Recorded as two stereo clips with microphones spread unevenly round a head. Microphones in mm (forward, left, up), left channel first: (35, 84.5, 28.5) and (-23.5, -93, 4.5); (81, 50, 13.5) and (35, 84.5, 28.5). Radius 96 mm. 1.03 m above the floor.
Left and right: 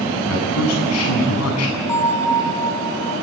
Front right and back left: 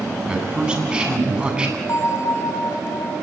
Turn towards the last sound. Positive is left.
turn(degrees=-5)